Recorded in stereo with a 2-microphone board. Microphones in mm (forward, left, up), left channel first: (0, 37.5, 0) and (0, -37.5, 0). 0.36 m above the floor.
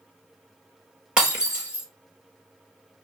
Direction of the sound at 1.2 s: 10° right (ahead or behind).